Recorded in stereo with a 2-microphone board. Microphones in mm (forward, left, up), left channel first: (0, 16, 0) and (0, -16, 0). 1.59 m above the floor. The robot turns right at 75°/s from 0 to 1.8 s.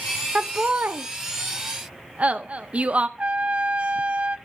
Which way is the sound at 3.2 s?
40° right (ahead or behind).